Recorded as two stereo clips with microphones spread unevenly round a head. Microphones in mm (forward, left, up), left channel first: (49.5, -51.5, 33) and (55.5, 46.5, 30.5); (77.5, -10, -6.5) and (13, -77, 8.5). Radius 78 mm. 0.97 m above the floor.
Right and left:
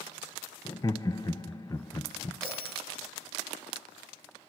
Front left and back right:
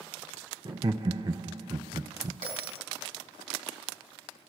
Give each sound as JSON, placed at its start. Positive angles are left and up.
{"t": 0.7, "sound": "laughter", "azimuth_deg": -115, "distance_m": 0.5}
{"t": 2.4, "sound": "a bell", "azimuth_deg": 180, "distance_m": 3.5}